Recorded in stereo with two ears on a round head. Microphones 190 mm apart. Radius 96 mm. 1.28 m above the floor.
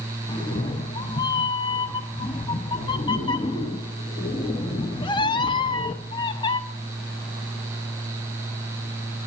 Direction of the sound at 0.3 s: 20° left (ahead or behind).